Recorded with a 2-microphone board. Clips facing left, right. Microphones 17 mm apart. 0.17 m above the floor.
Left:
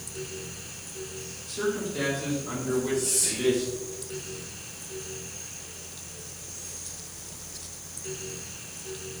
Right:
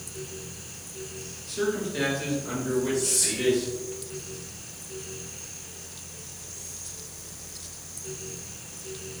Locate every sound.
1.5 s a man speaking: 15° right (ahead or behind), 2.5 m; by 3.9 s 30° right (ahead or behind), 4 m
2.9 s whispering: 25° right (ahead or behind), 1.6 m